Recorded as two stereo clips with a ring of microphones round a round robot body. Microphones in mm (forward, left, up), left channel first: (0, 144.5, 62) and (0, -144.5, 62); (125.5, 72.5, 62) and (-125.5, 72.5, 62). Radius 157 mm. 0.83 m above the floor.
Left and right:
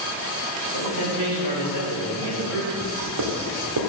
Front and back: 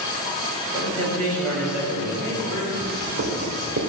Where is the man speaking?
110° right, 3.5 m; by 2.7 s 120° right, 5.5 m.